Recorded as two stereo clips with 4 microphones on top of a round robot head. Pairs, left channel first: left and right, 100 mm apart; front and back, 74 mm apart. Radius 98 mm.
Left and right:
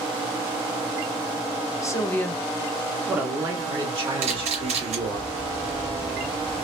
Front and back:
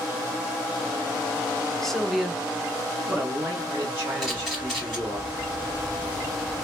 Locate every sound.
1.8 s a man speaking: 80° left, 0.9 m; by 5.2 s 125° right, 1.7 m
4.2 s a camera shutter: 90° right, 1.4 m